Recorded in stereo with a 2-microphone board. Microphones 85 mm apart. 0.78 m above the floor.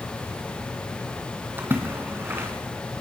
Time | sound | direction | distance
1.6 | a splash | 25° right (ahead or behind) | 3.5 m